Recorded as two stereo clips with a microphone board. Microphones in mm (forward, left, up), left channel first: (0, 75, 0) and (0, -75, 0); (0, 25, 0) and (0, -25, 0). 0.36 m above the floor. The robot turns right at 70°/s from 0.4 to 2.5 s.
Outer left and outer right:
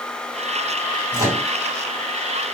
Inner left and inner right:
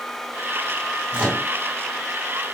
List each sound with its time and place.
1.1 s a microwave: 30° right (ahead or behind), 2.5 m; by 1.5 s 5° right (ahead or behind), 2.5 m